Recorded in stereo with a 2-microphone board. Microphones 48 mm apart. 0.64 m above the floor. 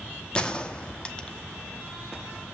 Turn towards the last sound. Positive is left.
turn(degrees=20)  # may be behind; listen again after turning